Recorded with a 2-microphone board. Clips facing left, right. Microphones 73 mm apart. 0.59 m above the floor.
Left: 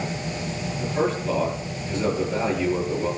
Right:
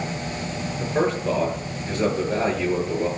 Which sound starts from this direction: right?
A man speaking, at 0.8 s.